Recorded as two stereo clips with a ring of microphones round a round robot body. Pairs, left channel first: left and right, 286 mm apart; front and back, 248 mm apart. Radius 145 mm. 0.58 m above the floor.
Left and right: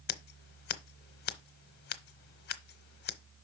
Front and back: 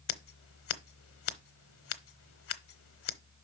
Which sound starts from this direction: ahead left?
Scissors, at 0.1 s.